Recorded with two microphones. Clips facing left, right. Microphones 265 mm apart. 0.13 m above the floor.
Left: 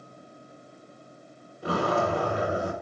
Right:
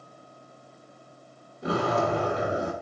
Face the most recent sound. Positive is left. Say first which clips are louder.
# even
turn(degrees=-25)  # may be behind; listen again after turning